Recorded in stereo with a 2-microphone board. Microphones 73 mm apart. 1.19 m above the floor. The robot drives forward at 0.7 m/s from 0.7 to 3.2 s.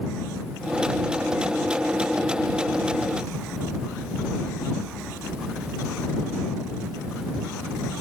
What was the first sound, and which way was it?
Only background noise.